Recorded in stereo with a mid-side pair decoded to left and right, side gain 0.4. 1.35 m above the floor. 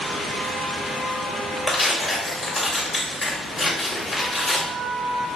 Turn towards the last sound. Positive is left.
turn(degrees=40)